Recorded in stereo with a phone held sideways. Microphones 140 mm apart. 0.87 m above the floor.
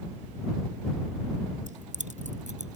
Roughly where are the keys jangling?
Right.